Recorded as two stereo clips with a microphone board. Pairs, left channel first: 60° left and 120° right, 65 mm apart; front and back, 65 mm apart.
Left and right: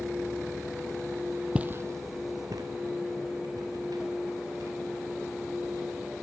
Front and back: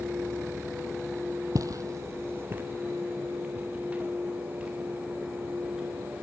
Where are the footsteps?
170° left, 0.5 m; by 6.0 s 105° right, 5 m.